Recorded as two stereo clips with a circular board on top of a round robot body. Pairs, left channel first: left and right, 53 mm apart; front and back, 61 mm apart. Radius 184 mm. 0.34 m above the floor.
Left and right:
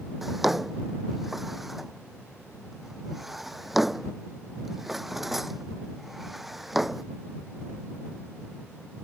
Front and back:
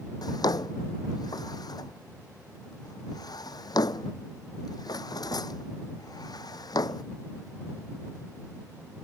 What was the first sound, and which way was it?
A drawer, 5° right.